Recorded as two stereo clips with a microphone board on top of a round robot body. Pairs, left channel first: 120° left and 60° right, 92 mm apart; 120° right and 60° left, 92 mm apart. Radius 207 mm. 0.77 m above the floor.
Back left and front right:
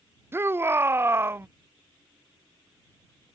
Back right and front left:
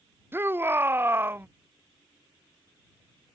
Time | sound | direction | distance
0.3 | a shout | straight ahead | ?